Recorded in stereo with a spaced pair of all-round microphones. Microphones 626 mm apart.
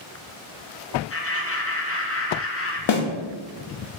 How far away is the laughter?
About 0.9 m.